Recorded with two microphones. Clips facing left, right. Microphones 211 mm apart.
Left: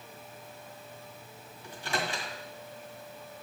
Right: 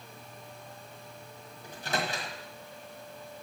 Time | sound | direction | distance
1.6 | a microwave | 40° right (ahead or behind) | 1.6 m